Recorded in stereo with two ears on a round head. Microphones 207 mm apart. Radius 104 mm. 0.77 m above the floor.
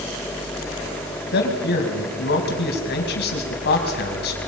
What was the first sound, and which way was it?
A man speaking, 50° left (ahead or behind).